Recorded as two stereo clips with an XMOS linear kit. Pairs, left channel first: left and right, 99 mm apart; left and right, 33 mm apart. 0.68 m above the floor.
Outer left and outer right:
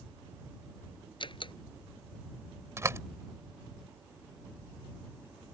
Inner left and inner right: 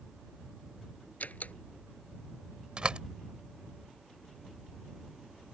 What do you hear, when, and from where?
1.2 s a door slam: 55° left (ahead or behind)
2.8 s a door slam: 30° right (ahead or behind)